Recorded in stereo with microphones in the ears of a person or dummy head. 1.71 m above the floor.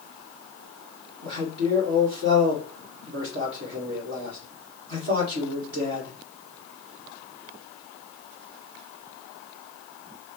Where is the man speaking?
65° right (ahead or behind), 2 m.